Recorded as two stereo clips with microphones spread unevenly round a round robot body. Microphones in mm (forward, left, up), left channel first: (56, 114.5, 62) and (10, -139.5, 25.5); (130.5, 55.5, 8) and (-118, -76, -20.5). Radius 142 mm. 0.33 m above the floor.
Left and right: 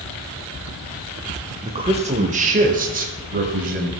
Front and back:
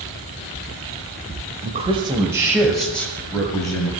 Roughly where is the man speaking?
Behind right.